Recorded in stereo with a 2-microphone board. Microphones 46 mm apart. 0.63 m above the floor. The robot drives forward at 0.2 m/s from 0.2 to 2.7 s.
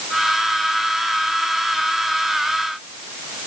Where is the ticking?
I don't hear ticking.